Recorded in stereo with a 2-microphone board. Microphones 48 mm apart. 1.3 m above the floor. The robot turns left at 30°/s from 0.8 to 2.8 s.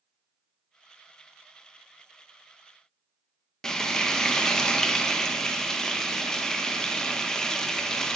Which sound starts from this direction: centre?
Frying, at 3.6 s.